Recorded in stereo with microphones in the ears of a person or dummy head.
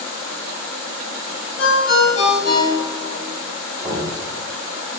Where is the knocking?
15° right (ahead or behind), 1.8 m.